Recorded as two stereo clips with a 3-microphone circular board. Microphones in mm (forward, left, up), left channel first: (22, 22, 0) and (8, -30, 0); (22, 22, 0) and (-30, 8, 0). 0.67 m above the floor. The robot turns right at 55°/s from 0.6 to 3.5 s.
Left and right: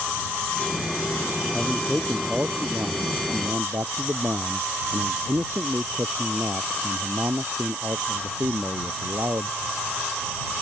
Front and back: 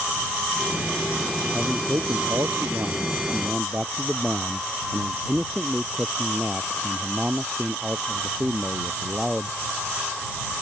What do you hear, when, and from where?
1.5 s a man speaking: 150° left; by 9.5 s 100° right